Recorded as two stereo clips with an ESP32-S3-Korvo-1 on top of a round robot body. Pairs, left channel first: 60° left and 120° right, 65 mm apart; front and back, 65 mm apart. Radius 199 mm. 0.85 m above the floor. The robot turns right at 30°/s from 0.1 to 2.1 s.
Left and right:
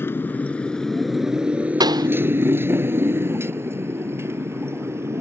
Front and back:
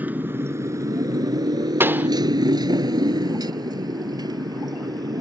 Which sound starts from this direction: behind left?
A motorcycle, at 0.0 s.